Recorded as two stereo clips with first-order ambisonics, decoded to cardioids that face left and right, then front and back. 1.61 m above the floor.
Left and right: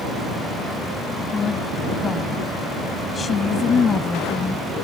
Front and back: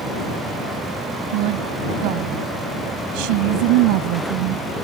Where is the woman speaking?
165° left.